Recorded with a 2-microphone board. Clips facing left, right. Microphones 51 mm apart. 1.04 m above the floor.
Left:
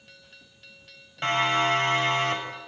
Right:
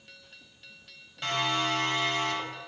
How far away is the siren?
About 9 m.